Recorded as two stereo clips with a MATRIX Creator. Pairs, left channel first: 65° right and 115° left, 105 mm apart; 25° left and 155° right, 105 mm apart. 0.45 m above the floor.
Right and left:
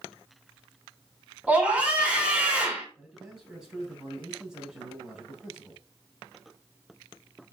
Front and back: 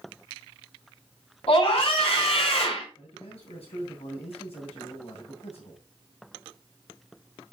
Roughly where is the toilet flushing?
No toilet flushing in this recording.